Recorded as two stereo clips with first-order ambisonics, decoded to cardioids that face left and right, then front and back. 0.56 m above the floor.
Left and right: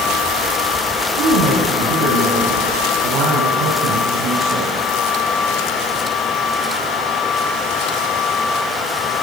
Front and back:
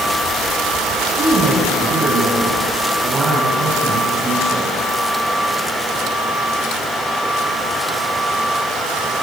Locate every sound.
1.2 s a woman speaking: 105° right, 4.5 m